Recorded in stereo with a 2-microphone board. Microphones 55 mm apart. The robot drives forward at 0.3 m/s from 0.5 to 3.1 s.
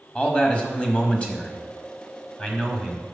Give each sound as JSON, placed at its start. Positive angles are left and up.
{"t": 0.1, "sound": "a man speaking", "side_deg": 20, "distance_m": 1.4}